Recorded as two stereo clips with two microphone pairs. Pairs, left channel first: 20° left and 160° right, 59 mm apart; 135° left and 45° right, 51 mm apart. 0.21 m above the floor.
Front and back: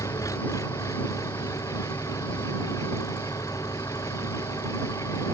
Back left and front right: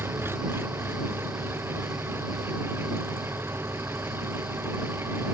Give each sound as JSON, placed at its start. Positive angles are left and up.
{"t": 0.0, "sound": "an engine running", "azimuth_deg": 0}